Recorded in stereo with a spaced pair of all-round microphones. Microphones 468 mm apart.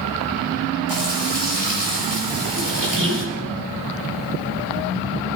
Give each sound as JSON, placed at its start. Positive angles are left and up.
{"t": 0.9, "sound": "frying", "side_deg": -70, "distance_m": 6.5}
{"t": 2.6, "sound": "a squeak", "side_deg": -45, "distance_m": 1.7}